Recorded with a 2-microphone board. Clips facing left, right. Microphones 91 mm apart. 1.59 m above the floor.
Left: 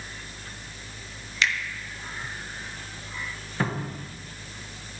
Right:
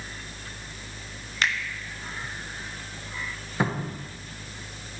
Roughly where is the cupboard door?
Centre.